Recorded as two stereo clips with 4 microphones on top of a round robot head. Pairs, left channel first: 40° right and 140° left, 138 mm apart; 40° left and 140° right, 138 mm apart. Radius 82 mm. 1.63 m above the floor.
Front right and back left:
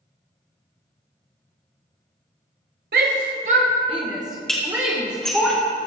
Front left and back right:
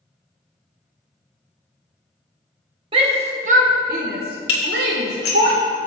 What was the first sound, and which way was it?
A shout, 165° left.